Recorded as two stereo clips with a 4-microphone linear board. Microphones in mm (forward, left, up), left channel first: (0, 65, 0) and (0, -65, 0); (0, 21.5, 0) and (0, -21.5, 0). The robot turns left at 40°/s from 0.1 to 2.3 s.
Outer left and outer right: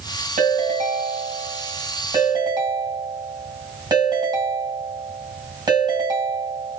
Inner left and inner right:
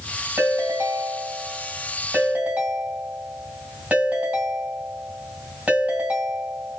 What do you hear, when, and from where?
0.4 s a ringtone: 70° right, 3 m; by 6.8 s 150° right, 3 m